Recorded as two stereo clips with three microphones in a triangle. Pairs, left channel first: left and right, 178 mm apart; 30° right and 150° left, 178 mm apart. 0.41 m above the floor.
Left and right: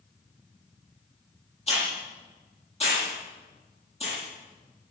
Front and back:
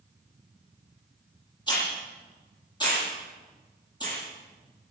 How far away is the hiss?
About 9 m.